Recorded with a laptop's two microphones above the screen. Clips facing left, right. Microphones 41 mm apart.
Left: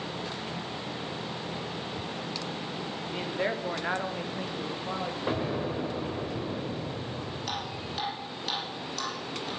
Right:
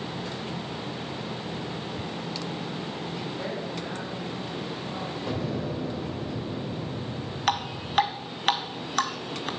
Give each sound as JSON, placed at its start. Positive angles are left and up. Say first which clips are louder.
{"t": 3.1, "sound": "a man speaking", "louder": "left 6 dB", "side_deg": 45, "distance_m": 2.5}
{"t": 5.3, "sound": "an explosion", "louder": "left 1 dB", "side_deg": 25, "distance_m": 2.0}
{"t": 7.5, "sound": "dripping", "louder": "right 12 dB", "side_deg": -60, "distance_m": 1.7}